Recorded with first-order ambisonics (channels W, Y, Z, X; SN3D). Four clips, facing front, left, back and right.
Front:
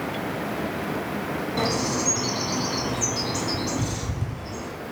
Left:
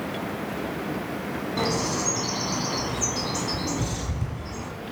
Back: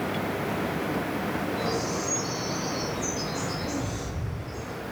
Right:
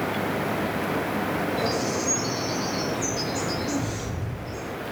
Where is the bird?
40° left, 2 m.